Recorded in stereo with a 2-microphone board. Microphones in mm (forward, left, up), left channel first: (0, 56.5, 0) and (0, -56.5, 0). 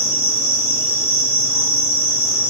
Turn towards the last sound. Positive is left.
turn(degrees=70)  # may be behind; listen again after turning